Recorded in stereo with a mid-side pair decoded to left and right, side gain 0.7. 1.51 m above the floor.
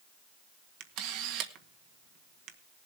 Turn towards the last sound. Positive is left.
turn(degrees=-65)